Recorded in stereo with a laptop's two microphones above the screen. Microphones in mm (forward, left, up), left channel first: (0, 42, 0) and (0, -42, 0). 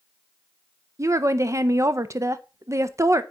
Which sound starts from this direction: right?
A woman speaking, at 1.0 s.